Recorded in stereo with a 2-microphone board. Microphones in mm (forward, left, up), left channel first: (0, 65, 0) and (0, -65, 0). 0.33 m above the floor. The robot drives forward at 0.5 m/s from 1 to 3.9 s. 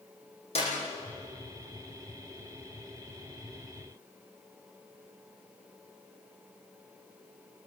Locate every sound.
0.6 s a clap: 55° left (ahead or behind), 10 m